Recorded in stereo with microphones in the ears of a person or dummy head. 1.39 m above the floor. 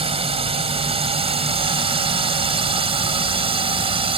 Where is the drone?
30° right (ahead or behind).